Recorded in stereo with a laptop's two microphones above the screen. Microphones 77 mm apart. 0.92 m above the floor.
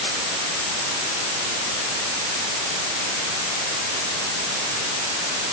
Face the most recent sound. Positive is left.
No sound to turn to.